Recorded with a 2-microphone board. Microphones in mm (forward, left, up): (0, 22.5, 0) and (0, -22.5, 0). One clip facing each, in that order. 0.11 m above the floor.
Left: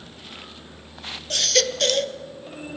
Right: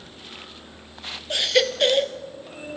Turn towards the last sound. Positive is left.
turn(degrees=-15)  # may be behind; listen again after turning